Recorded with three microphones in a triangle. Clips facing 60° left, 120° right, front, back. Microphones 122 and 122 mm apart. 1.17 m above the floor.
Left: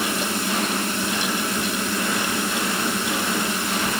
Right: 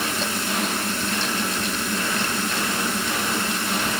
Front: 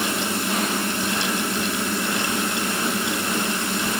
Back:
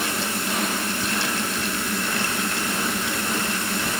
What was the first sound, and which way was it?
Only background noise.